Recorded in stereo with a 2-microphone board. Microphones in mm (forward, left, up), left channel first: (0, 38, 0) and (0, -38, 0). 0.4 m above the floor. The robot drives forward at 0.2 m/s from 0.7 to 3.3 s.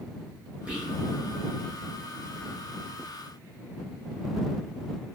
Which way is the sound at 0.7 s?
15° right (ahead or behind).